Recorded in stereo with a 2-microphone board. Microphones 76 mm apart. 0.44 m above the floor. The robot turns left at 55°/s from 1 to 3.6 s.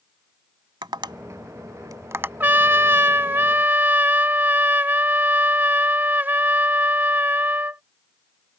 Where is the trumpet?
60° right; by 7.8 s 125° right.